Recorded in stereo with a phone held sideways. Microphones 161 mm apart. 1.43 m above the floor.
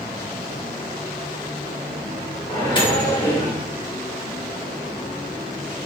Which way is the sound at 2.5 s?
30° left (ahead or behind).